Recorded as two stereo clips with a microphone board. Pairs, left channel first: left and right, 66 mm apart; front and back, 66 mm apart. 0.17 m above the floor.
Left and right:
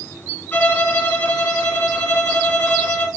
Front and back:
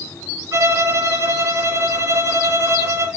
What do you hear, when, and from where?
0.5 s a violin: 145° left, 2.5 m